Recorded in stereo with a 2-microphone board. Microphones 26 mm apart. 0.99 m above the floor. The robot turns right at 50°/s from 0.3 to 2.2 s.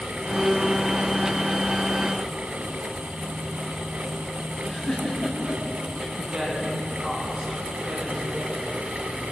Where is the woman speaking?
5° right (ahead or behind), 10 m.